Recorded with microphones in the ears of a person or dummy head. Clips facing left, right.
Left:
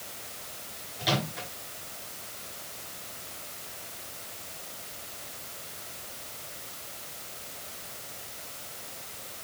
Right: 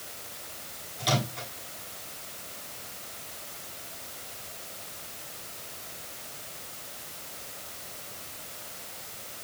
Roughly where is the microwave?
Centre.